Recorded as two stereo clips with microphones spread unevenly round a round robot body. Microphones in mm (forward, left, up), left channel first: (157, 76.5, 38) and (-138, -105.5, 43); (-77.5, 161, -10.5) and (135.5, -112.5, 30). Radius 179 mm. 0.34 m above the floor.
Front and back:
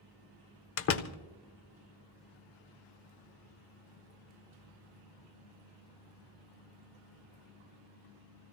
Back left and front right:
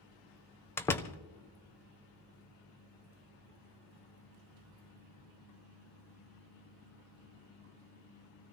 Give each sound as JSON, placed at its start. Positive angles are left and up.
{"t": 0.8, "sound": "a door slam", "azimuth_deg": 55, "distance_m": 0.7}